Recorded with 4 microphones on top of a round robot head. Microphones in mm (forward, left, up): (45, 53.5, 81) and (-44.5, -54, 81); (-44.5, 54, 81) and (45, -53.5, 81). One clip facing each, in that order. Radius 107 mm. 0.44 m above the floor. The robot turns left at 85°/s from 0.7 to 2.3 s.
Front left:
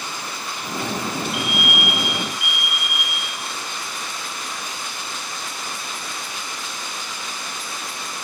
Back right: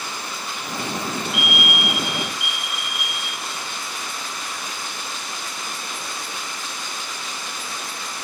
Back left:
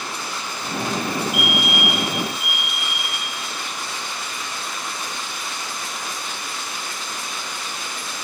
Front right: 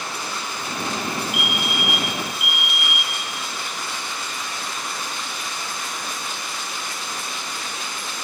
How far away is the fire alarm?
About 3.5 m.